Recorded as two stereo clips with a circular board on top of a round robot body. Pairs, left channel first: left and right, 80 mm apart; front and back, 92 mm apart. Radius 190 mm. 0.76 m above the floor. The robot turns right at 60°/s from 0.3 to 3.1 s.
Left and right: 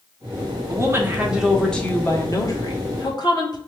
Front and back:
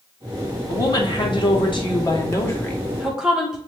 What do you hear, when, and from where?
0.7 s a woman speaking: 50° right, 1.4 m; by 3.6 s 95° left, 1.4 m